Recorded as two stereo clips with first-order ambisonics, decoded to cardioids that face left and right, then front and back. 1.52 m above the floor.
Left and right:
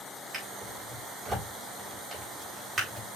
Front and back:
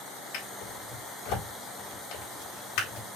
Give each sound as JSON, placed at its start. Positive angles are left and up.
{"t": 0.3, "sound": "a drawer", "azimuth_deg": -20, "distance_m": 4.5}